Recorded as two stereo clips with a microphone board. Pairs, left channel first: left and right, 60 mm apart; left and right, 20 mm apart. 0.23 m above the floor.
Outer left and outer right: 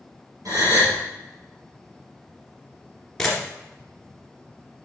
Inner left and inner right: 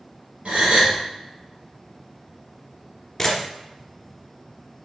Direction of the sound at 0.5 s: 80° right.